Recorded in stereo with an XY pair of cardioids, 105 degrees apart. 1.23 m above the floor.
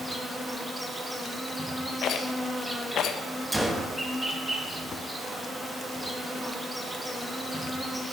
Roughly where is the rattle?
Ahead left.